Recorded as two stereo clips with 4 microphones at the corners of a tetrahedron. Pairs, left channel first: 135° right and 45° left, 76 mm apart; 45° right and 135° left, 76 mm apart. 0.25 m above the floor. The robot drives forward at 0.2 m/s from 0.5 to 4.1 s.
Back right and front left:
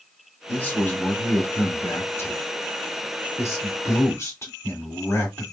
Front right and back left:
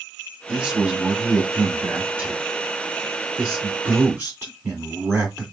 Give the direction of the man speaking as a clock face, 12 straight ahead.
5 o'clock.